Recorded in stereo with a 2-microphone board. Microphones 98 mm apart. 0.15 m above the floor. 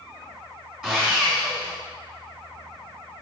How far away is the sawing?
About 1.9 m.